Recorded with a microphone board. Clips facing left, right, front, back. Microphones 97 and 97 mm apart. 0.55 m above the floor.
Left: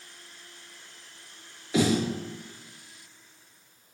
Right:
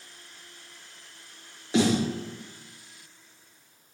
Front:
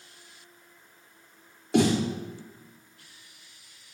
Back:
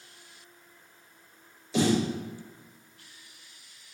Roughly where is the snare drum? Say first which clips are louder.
Right 1 dB, front 2 dB; ahead right.